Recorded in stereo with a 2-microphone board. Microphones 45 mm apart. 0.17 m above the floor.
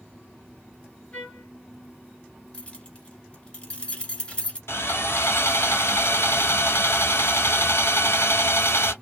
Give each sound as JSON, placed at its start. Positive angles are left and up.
{"t": 1.1, "sound": "a trumpet", "side_deg": 20, "distance_m": 1.3}
{"t": 2.5, "sound": "keys jangling", "side_deg": 20, "distance_m": 1.1}
{"t": 4.7, "sound": "sawing", "side_deg": 60, "distance_m": 1.1}